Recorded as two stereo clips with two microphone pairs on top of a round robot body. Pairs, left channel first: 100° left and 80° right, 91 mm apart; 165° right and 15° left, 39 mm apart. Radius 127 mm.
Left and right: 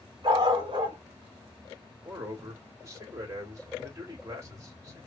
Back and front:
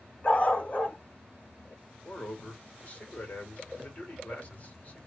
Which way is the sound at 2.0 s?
120° right.